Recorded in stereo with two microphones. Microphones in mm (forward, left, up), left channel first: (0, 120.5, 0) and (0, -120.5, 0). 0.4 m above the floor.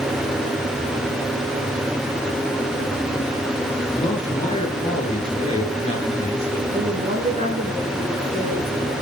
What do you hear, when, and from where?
3.9 s a man speaking: 25° left (ahead or behind), 7.5 m
6.7 s a woman speaking: 25° right (ahead or behind), 5 m